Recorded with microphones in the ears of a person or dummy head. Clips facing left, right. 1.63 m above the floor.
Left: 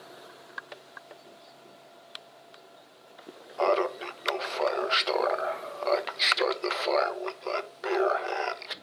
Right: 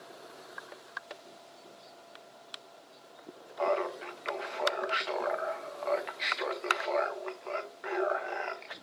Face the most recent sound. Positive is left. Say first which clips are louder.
# left 5 dB
turn(degrees=45)  # may be behind; listen again after turning